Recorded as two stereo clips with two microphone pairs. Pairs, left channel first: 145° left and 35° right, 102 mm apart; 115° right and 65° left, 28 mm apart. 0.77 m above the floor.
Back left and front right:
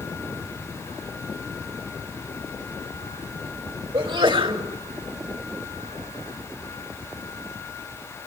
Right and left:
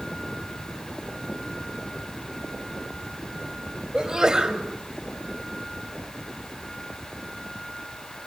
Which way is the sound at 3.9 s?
5° right.